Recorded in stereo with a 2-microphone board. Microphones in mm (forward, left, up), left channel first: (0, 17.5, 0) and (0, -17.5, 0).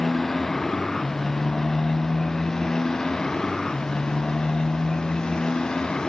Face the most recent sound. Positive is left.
turn(degrees=25)  # may be behind; listen again after turning